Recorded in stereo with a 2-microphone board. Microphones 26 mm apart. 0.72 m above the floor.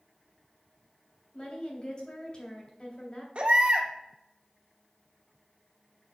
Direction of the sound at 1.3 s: 35° left (ahead or behind).